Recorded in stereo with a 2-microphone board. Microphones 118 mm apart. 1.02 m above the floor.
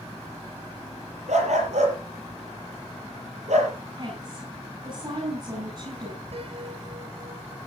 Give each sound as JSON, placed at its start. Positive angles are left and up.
{"t": 1.3, "sound": "a dog barking", "side_deg": -75, "distance_m": 6.0}
{"t": 4.0, "sound": "a woman speaking", "side_deg": -35, "distance_m": 9.0}
{"t": 6.3, "sound": "a piano", "side_deg": -60, "distance_m": 4.5}